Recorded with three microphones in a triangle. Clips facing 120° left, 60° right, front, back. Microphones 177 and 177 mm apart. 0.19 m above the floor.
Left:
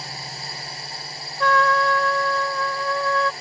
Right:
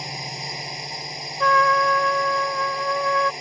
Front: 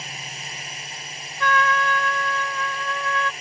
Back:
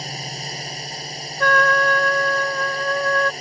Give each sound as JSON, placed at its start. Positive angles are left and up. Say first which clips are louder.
{"t": 0.0, "sound": "a drone", "louder": "right 3 dB, back 7 dB", "azimuth_deg": -130}
{"t": 1.4, "sound": "a trumpet", "louder": "even, back 4 dB", "azimuth_deg": -145}